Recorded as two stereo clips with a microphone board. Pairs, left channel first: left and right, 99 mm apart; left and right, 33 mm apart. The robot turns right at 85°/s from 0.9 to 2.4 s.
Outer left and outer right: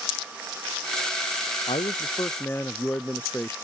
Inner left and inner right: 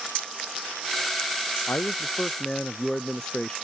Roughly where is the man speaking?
Left.